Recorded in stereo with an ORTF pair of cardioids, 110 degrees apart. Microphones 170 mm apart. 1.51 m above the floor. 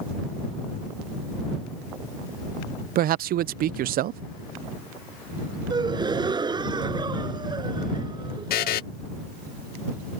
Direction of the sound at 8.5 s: 65° left.